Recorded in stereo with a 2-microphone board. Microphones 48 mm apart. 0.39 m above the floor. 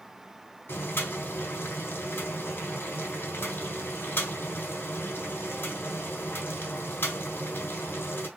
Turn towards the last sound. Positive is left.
turn(degrees=45)  # may be behind; listen again after turning